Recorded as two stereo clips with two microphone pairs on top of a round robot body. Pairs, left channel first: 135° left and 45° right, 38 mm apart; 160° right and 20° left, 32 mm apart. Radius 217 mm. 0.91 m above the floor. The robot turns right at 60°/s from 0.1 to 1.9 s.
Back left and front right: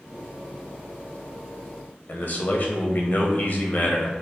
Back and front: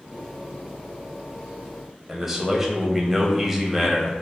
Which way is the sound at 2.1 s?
105° left.